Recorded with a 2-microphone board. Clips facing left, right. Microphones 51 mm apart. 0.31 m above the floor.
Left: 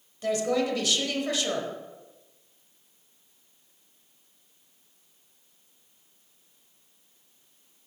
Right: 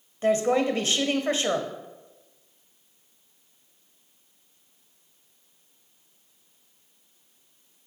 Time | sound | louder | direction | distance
0.2 | a woman speaking | right 4 dB | 35° right (ahead or behind) | 1.1 m